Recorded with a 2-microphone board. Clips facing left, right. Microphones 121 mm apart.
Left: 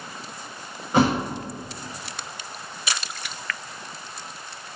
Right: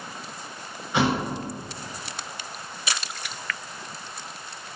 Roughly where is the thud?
Left.